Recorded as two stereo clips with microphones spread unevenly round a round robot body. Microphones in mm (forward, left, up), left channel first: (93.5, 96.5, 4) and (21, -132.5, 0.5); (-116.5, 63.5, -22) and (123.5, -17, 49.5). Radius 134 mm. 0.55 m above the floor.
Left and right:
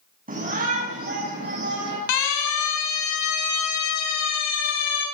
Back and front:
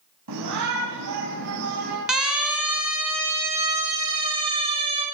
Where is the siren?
75° left, 6 m; by 5.0 s 55° left, 8 m.